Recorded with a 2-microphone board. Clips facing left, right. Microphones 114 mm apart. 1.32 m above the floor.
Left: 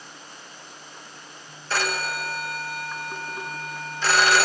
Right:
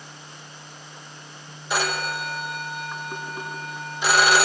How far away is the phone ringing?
About 0.7 m.